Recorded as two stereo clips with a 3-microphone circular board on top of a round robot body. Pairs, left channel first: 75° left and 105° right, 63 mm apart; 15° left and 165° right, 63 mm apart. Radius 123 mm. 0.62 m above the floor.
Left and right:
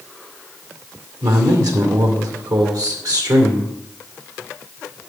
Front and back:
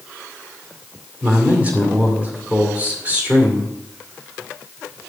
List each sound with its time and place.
1.2 s a man speaking: 100° right, 2 m